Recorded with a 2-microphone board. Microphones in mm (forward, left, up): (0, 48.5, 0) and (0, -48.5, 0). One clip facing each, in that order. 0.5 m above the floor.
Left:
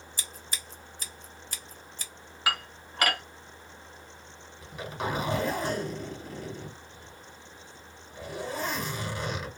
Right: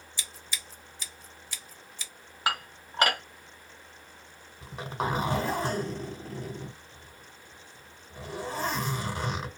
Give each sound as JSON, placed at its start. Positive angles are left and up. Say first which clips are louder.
{"t": 0.2, "sound": "scissors", "louder": "right 1 dB", "side_deg": 45, "distance_m": 0.8}
{"t": 2.5, "sound": "dishes clattering", "louder": "right 1 dB", "side_deg": -30, "distance_m": 1.4}
{"t": 4.6, "sound": "a zipper", "louder": "right 2 dB", "side_deg": -35, "distance_m": 1.7}